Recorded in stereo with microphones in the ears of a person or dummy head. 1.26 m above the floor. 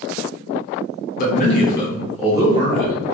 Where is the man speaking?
45° left (ahead or behind), 0.7 m; by 3.0 s 30° right (ahead or behind), 0.9 m.